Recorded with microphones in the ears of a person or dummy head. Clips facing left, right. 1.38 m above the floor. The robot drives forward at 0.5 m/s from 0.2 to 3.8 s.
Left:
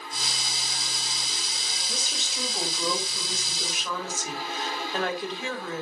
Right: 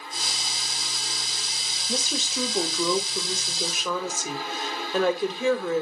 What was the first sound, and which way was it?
A woman speaking, 70° right (ahead or behind).